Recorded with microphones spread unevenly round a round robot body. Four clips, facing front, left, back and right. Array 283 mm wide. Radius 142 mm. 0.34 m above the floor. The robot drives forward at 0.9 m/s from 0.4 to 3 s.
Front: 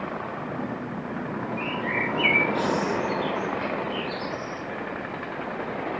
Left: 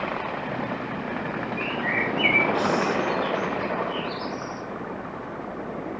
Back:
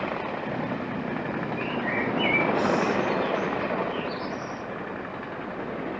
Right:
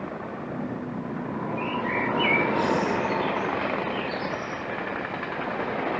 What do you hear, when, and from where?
1.6 s a bird: 110° left, 2 m; by 4.6 s 140° left, 2.5 m